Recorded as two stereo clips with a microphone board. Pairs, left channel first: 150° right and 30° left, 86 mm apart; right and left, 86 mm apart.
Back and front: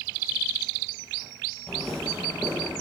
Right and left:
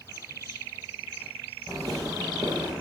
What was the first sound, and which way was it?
Footsteps, 130° left.